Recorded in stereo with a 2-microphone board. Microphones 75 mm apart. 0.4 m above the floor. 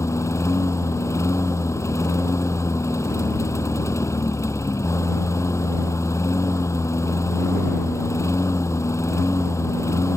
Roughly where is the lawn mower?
Left.